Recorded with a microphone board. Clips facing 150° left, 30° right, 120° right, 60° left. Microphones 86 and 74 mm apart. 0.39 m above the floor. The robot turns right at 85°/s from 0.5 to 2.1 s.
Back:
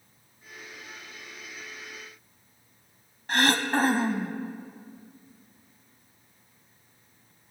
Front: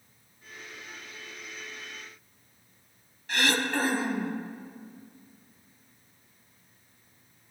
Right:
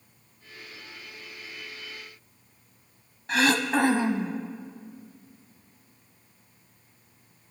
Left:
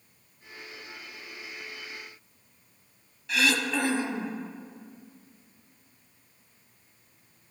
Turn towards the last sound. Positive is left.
turn(degrees=-165)